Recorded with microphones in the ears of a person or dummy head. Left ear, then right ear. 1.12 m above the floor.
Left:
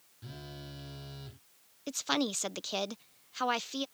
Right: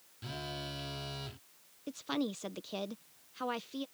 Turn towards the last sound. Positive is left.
turn(degrees=40)  # may be behind; listen again after turning